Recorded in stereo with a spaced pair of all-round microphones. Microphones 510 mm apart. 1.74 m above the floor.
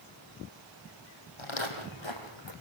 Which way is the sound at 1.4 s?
65° left (ahead or behind).